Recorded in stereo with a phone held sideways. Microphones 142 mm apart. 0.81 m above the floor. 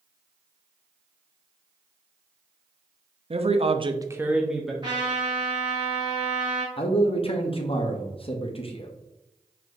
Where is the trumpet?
30° right (ahead or behind), 2 m.